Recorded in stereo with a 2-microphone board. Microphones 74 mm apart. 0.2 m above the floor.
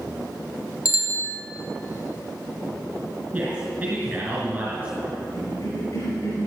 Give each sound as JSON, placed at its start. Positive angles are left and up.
{"t": 0.8, "sound": "a bicycle bell", "side_deg": 50, "distance_m": 2.5}
{"t": 3.3, "sound": "a man speaking", "side_deg": -15, "distance_m": 3.0}
{"t": 5.3, "sound": "a cough", "side_deg": 50, "distance_m": 4.5}